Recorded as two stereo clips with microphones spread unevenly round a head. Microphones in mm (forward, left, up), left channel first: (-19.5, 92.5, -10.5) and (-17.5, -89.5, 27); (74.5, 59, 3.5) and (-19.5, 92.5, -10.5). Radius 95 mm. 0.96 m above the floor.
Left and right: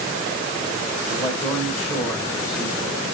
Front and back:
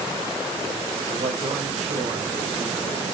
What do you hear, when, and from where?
1.1 s a man speaking: 165° left, 4.5 m